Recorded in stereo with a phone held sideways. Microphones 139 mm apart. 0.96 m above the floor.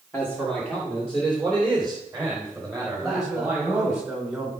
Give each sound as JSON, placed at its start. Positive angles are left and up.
{"t": 0.1, "sound": "a man speaking", "side_deg": 10, "distance_m": 2.0}
{"t": 2.9, "sound": "a man speaking", "side_deg": -5, "distance_m": 4.0}